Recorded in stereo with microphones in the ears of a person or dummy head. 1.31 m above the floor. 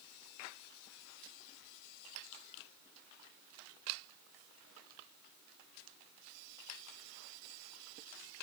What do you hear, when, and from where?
Only background noise.